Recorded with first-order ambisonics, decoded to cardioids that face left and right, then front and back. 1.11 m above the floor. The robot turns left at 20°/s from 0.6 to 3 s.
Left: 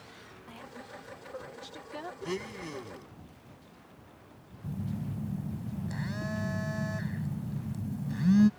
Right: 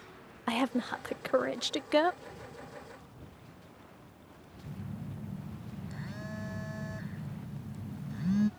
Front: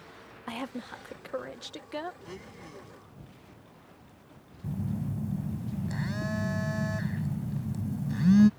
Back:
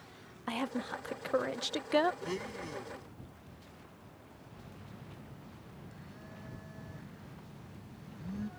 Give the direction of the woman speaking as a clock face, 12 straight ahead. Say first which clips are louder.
Right 16 dB, back 2 dB; 3 o'clock.